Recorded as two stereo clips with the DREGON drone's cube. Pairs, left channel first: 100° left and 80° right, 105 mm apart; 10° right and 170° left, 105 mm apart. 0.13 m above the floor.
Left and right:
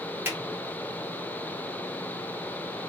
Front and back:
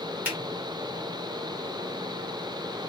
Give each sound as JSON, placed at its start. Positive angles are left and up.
{"t": 0.2, "sound": "a finger snap", "azimuth_deg": -130, "distance_m": 1.5}